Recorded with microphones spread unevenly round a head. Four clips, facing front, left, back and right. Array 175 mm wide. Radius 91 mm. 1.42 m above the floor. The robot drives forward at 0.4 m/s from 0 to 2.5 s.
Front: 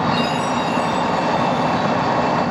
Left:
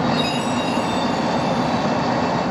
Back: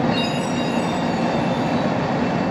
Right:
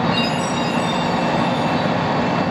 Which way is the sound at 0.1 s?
115° right.